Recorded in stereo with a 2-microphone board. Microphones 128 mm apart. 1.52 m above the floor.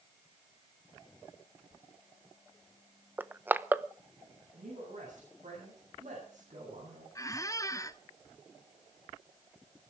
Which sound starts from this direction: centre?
Crushing, at 3.2 s.